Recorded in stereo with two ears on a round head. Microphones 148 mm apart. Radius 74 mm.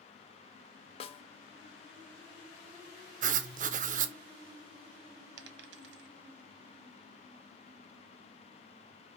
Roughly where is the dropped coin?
Right.